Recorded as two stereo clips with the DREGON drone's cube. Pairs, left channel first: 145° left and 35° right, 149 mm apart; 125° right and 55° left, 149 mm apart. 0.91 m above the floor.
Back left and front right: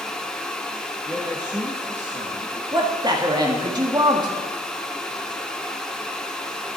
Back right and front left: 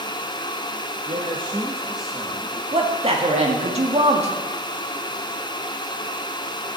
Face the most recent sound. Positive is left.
turn(degrees=20)